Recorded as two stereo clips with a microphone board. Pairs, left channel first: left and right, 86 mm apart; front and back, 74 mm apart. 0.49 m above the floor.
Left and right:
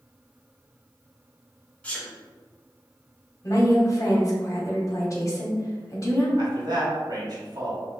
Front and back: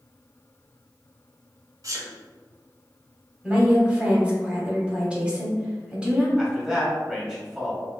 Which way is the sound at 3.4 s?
110° left.